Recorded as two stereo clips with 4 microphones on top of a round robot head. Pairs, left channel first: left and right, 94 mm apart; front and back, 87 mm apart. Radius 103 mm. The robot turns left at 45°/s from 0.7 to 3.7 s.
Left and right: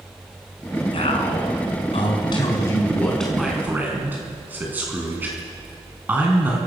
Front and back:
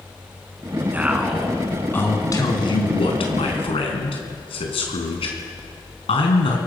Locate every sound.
0.9 s a man speaking: 110° left, 4.5 m; by 6.6 s 15° right, 4.5 m